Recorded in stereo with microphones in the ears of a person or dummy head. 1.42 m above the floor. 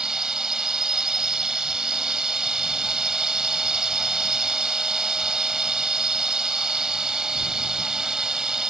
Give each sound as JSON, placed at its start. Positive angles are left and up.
{"t": 0.0, "sound": "a drone", "side_deg": 0}